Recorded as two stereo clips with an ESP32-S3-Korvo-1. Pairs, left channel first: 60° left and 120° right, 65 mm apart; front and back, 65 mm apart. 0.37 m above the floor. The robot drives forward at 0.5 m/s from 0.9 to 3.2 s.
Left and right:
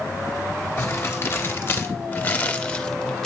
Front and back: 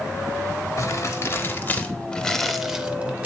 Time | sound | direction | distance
0.8 | crumpling | 25° left | 1.1 m